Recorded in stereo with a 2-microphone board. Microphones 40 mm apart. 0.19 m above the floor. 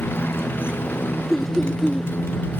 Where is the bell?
No bell in this recording.